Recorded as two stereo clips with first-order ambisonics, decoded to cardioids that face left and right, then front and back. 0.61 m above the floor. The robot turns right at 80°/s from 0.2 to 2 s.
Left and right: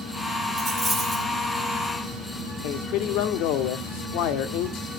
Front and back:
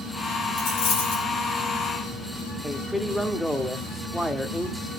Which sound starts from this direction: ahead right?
A dropped coin, at 0.6 s.